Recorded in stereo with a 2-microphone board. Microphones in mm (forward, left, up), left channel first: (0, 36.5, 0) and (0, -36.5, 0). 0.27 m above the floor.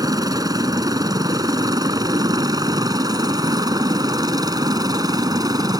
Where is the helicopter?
55° right (ahead or behind); by 5.8 s 60° right (ahead or behind).